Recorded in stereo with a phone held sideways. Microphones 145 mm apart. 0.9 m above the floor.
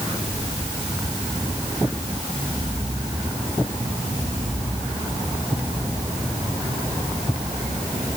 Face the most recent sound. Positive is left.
No sound to turn to.